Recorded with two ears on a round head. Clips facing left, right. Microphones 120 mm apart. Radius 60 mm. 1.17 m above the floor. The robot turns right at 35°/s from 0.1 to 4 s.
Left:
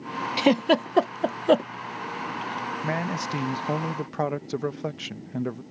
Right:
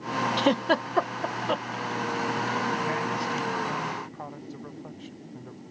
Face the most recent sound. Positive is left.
turn(degrees=85)